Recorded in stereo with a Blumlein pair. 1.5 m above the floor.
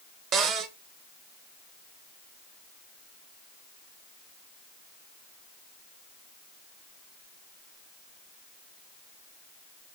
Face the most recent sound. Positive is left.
turn(degrees=-25)